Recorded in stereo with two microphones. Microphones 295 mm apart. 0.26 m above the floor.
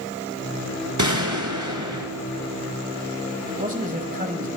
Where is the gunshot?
70° right (ahead or behind), 1.3 m.